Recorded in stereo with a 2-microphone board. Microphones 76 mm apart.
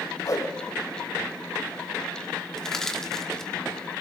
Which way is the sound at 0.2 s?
50° left (ahead or behind).